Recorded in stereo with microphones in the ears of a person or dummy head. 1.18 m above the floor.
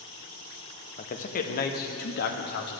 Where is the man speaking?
35° left (ahead or behind), 1.4 m; by 2.8 s 55° left (ahead or behind), 2 m.